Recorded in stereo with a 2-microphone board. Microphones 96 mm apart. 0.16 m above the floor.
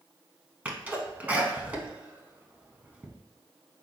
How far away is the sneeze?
About 1.0 m.